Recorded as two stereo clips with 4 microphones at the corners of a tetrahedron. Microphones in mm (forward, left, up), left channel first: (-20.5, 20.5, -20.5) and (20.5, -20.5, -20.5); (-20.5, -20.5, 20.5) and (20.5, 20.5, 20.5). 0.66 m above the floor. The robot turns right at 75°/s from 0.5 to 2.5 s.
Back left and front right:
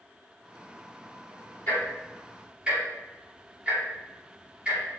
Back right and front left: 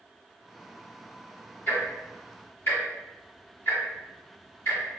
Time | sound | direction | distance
1.7 | ticking | 175° right | 1.9 m